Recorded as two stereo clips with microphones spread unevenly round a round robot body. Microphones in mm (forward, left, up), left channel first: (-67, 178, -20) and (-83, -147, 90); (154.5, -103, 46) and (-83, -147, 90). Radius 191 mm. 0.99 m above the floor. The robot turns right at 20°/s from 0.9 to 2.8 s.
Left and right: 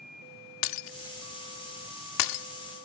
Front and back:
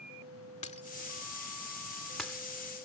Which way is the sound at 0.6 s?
85° left.